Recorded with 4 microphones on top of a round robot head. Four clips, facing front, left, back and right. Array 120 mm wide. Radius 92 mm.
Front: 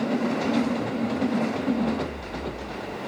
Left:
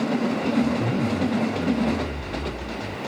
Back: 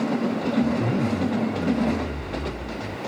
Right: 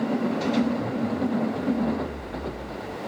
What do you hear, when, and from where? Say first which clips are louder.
0.6 s a zipper: left 2 dB, back 3 dB; 150° left